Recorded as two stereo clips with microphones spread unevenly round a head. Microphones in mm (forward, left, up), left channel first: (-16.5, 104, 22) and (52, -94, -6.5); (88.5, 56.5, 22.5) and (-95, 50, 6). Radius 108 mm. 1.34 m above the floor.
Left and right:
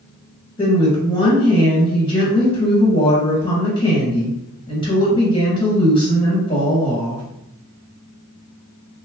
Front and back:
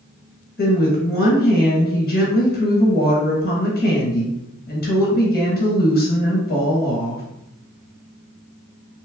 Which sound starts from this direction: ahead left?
A woman speaking, at 0.6 s.